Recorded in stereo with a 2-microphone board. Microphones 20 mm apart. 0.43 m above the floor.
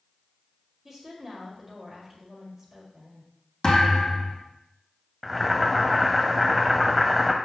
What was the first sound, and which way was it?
A woman speaking, 20° right (ahead or behind).